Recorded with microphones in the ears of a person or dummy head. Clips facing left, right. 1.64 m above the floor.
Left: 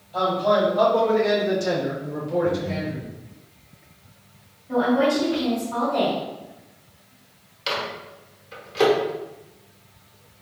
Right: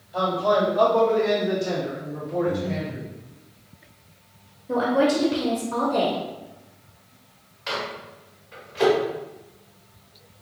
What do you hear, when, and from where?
0.1 s a man speaking: 15° right (ahead or behind), 1.4 m; by 3.0 s 70° left (ahead or behind), 1.5 m
2.4 s breathing: 5° left (ahead or behind), 0.8 m
4.7 s a woman speaking: 45° right (ahead or behind), 0.7 m
7.7 s a microwave: 45° left (ahead or behind), 1.2 m